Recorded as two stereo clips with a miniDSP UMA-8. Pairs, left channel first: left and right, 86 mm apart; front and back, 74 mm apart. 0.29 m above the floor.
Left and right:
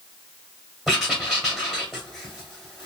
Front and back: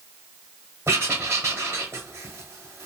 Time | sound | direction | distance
0.9 | writing | 175° right | 1.3 m